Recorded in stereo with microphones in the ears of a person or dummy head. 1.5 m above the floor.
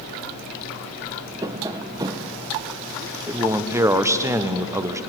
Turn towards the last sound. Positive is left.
turn(degrees=-15)  # may be behind; listen again after turning